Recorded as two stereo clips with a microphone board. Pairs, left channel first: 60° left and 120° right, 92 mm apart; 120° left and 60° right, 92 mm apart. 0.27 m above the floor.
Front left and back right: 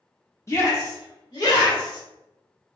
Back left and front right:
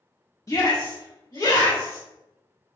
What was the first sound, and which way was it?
A shout, 100° left.